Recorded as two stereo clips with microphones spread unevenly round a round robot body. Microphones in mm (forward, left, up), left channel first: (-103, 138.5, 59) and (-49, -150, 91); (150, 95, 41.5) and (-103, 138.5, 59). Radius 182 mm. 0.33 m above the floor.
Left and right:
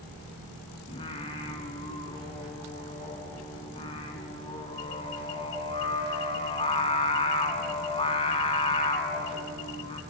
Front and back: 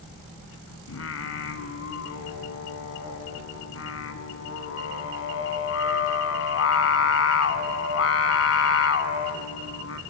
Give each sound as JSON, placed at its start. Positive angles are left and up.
{"t": 0.9, "sound": "singing", "azimuth_deg": 25, "distance_m": 0.8}